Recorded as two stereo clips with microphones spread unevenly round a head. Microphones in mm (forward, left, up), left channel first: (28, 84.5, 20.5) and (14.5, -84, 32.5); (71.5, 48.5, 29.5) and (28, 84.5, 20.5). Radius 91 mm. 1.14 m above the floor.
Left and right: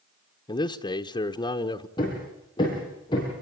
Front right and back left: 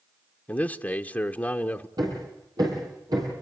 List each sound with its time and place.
0.5 s a man speaking: 30° left, 1.2 m
2.0 s hammering: 155° left, 8.5 m